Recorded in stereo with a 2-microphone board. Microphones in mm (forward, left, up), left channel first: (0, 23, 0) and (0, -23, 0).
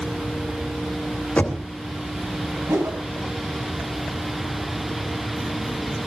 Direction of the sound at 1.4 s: 35° left (ahead or behind).